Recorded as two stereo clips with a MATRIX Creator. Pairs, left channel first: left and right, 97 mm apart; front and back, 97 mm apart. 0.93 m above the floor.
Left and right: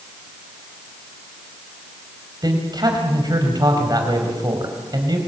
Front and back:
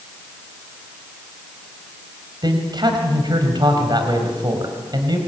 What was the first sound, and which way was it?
A man speaking, 135° right.